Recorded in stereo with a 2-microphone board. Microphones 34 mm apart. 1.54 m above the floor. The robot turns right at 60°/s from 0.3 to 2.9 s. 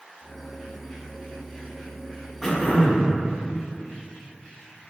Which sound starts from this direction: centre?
Throat clearing, at 2.4 s.